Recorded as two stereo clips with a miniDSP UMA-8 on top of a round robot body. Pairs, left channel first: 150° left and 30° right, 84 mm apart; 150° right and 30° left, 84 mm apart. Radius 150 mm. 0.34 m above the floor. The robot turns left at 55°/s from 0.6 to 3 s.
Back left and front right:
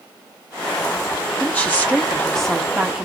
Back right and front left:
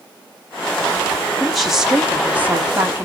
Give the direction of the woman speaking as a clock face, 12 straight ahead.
8 o'clock.